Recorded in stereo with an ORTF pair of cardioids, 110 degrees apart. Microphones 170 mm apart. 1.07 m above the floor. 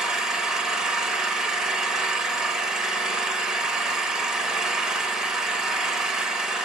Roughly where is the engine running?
Ahead.